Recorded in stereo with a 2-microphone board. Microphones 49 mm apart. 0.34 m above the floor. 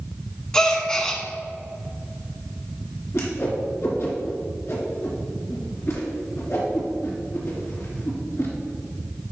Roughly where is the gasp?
Centre.